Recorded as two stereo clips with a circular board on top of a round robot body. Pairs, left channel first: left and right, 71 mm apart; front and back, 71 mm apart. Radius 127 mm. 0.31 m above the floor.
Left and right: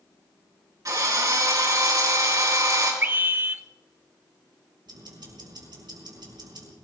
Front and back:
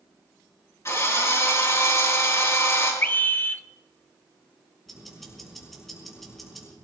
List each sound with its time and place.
0.8 s a drill: 50° right, 5.5 m
3.0 s a scream: 50° right, 1.1 m
4.9 s ticking: 90° right, 5.5 m